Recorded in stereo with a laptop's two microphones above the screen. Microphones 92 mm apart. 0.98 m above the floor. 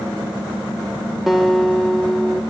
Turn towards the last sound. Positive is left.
turn(degrees=0)  # may be behind; listen again after turning